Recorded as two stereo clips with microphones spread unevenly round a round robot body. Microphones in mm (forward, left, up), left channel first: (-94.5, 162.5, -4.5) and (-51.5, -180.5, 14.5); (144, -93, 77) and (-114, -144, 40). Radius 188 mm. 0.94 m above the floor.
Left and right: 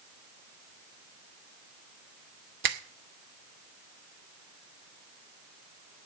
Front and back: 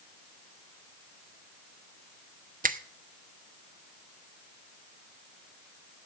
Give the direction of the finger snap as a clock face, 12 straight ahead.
4 o'clock.